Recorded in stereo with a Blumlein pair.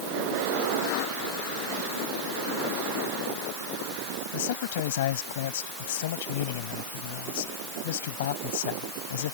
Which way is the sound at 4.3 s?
55° left.